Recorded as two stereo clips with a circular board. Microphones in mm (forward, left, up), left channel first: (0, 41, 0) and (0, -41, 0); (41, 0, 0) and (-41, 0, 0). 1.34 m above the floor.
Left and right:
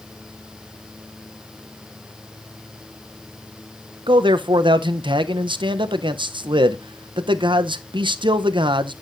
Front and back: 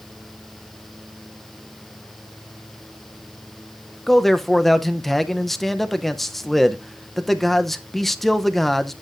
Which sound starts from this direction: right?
A man speaking, at 4.1 s.